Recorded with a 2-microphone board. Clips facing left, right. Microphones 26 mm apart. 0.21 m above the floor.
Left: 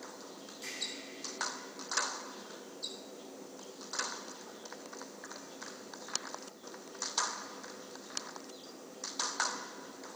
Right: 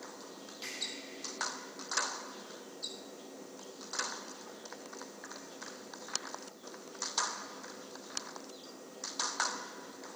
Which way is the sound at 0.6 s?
35° right (ahead or behind).